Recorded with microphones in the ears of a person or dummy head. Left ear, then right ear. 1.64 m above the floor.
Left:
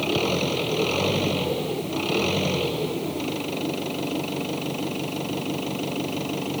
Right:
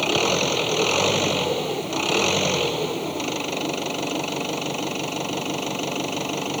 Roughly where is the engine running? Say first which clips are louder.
Right 3 dB; right.